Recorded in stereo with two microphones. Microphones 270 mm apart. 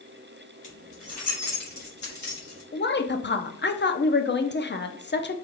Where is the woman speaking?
40° left (ahead or behind), 0.6 m.